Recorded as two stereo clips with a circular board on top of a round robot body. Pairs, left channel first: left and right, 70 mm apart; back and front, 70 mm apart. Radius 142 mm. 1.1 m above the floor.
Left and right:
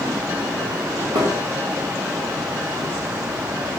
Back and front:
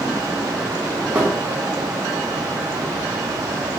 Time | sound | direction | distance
1.1 | a thud | 75° right | 1.5 m